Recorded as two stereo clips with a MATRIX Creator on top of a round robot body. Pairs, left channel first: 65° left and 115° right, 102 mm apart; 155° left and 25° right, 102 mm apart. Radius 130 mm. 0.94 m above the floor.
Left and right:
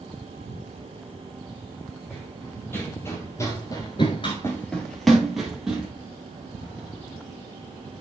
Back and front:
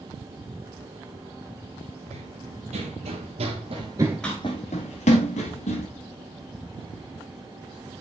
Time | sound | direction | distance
2.1 | running footsteps | 5° right | 3 m